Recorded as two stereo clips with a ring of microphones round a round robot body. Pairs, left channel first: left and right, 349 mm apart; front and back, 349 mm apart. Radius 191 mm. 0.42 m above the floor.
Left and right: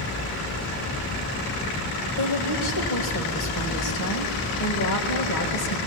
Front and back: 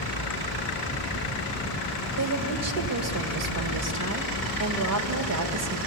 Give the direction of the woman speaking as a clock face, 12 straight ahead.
7 o'clock.